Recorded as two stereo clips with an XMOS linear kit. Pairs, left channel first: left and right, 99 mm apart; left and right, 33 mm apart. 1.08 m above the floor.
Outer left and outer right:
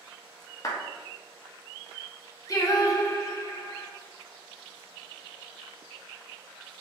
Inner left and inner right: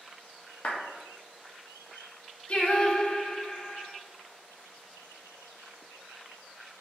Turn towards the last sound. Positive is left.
turn(degrees=35)  # may be behind; listen again after turning